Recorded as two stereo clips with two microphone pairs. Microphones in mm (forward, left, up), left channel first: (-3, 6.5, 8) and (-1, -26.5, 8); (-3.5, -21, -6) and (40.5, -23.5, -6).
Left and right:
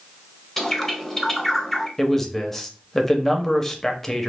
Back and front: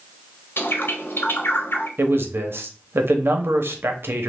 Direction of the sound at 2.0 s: 15° left.